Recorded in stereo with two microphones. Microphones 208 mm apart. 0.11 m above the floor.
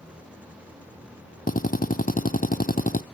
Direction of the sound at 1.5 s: 40° left (ahead or behind).